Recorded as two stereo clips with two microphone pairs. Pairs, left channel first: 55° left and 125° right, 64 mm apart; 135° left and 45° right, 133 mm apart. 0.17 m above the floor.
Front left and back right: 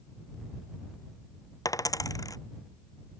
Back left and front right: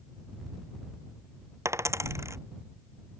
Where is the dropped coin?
25° left.